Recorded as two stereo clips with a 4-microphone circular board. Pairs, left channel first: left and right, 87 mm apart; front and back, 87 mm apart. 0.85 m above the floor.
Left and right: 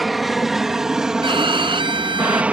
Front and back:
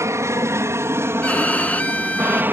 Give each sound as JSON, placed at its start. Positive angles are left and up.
{"t": 0.0, "sound": "an aircraft", "azimuth_deg": 180}
{"t": 1.2, "sound": "a violin", "azimuth_deg": -75}